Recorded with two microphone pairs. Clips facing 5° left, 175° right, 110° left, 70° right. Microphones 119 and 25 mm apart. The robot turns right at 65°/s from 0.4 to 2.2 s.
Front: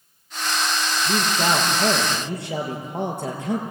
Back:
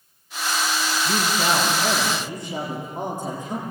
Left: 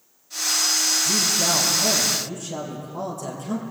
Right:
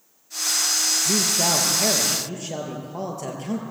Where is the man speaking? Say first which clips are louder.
Front 1 dB, even; 85° right, 6.5 m; by 3.6 s 10° right, 6.5 m.